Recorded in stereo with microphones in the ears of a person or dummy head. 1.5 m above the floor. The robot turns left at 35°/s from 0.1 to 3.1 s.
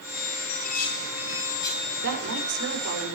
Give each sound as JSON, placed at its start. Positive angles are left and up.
{"t": 0.5, "sound": "dishes clattering", "side_deg": 65, "distance_m": 8.5}
{"t": 2.0, "sound": "a woman speaking", "azimuth_deg": -60, "distance_m": 6.5}